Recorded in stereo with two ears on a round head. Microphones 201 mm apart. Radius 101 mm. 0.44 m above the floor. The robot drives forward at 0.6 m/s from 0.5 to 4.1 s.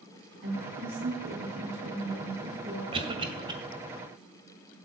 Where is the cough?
25° right (ahead or behind), 1.8 m; by 3.5 s 20° right (ahead or behind), 2 m.